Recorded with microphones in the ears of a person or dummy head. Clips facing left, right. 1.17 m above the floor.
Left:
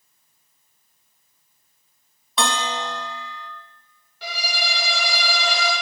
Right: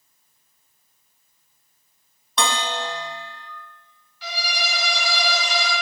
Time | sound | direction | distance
2.4 | a bell | 5° left (ahead or behind) | 0.6 m
4.2 | a violin | 45° left (ahead or behind) | 4 m